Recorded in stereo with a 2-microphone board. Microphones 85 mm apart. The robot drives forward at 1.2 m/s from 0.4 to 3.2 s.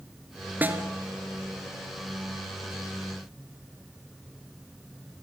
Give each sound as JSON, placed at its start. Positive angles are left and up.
{"t": 0.6, "sound": "a snare drum", "side_deg": -20, "distance_m": 1.9}